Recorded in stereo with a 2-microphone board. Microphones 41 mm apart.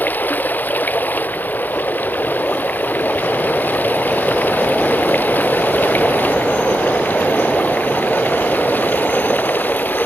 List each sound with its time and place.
0.0 s running water: 45° left (ahead or behind)